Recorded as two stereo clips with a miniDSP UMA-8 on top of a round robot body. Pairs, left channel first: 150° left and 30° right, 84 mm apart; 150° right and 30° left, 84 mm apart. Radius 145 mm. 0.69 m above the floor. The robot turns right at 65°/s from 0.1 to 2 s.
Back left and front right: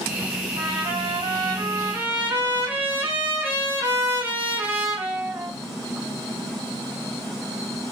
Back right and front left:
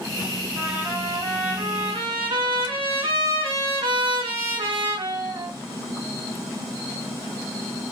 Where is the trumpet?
50° right, 2.5 m; by 5.5 s 45° left, 2.5 m.